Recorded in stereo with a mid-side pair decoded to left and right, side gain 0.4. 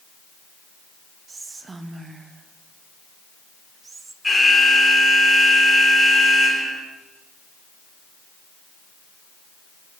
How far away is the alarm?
About 3.5 m.